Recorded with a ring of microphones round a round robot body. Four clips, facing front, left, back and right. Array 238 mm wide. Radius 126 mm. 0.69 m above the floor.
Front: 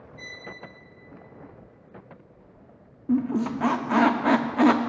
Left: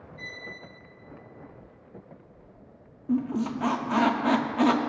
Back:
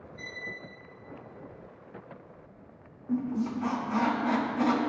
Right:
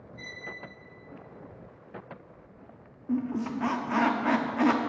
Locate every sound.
0.2 s a violin: 80° right, 1.7 m
3.1 s a squeak: 15° left, 0.5 m